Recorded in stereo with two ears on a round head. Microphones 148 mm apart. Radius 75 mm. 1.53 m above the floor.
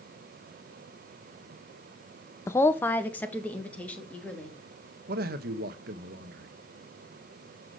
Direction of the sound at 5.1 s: 65° right (ahead or behind).